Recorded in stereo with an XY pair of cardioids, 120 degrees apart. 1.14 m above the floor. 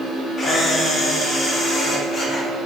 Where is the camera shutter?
45° left, 1.1 m.